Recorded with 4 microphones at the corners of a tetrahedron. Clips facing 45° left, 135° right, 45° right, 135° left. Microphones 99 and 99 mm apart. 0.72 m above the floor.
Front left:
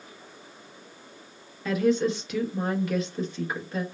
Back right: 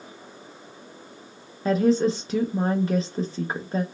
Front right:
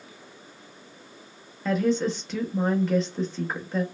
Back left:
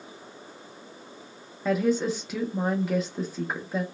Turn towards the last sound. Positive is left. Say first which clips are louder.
# back right 3 dB, even
turn(degrees=-150)